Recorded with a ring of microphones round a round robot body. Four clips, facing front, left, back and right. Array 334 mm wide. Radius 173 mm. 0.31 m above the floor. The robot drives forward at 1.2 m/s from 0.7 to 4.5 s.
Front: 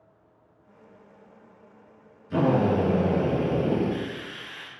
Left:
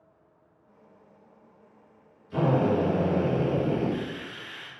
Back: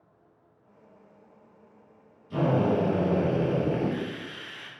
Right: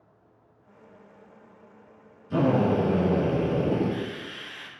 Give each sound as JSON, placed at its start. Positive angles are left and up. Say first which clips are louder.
{"t": 2.3, "sound": "a drill", "louder": "right 1 dB, front 2 dB", "azimuth_deg": -75, "distance_m": 3.5}